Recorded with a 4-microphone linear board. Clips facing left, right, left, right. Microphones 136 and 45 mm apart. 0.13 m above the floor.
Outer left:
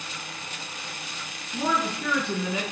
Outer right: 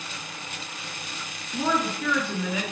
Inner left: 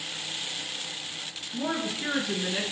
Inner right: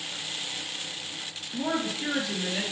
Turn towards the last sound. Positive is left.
turn(degrees=30)  # may be behind; listen again after turning